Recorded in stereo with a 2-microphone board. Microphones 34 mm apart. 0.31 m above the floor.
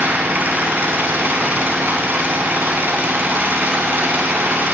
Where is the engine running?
75° right (ahead or behind), 1.1 m.